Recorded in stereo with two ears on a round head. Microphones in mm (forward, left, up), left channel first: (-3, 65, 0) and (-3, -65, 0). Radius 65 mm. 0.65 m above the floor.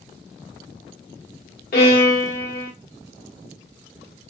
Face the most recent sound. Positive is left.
turn(degrees=65)  # may be behind; listen again after turning